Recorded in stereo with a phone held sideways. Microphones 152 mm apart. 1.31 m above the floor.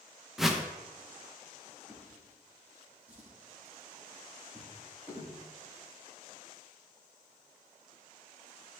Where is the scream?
I don't hear a scream.